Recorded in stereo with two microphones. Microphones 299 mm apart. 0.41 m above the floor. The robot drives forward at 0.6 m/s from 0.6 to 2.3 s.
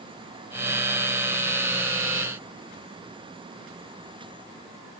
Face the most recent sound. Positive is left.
No sound to turn to.